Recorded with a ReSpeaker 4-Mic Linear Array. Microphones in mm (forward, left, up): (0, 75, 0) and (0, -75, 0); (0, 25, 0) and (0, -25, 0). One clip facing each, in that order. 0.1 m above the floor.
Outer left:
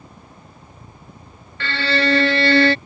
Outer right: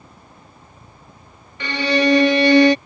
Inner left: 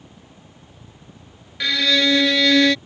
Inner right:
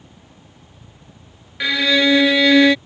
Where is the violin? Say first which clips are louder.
Outer right 4 dB, inner right 3 dB; 15° right (ahead or behind).